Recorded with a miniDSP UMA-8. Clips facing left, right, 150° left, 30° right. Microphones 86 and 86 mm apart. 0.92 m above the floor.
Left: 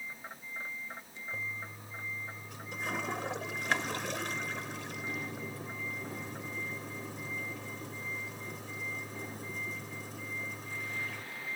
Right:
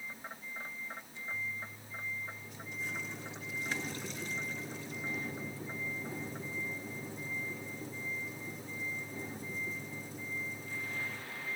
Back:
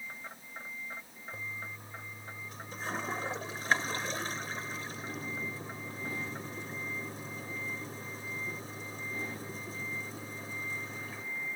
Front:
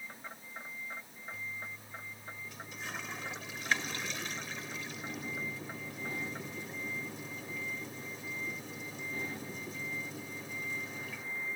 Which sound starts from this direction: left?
A toilet flushing, at 1.3 s.